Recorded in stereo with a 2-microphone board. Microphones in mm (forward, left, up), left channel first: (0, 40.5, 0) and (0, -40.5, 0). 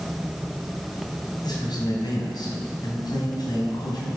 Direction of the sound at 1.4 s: 65° left (ahead or behind).